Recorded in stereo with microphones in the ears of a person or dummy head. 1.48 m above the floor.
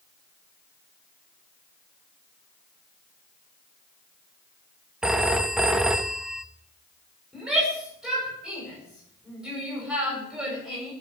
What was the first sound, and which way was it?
A phone ringing, 5° right (ahead or behind).